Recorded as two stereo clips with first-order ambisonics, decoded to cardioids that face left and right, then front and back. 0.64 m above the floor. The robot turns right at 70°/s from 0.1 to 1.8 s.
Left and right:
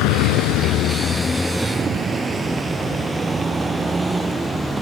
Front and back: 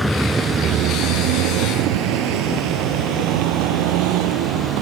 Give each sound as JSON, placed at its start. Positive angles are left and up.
{"t": 0.0, "sound": "a vehicle", "azimuth_deg": 90}